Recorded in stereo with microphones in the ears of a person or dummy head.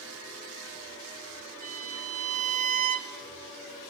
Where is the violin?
40° right (ahead or behind), 1.3 m.